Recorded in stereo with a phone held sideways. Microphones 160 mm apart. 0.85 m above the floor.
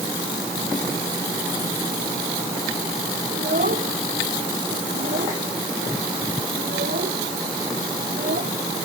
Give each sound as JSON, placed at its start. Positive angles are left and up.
{"t": 3.3, "sound": "a child speaking", "side_deg": -70}